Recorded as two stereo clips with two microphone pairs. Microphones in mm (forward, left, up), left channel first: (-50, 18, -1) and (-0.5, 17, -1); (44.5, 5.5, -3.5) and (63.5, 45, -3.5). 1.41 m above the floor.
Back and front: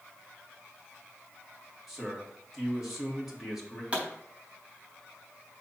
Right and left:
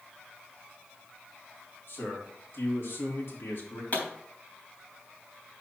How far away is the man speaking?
About 2.5 m.